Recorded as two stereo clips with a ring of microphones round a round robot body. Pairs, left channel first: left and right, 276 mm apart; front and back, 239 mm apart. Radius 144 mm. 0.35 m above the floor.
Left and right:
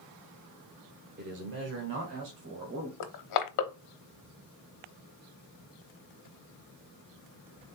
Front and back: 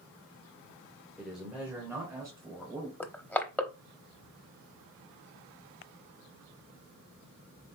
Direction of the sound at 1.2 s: 90° right.